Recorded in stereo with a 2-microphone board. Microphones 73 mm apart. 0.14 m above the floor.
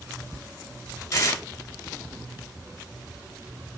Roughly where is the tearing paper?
Left.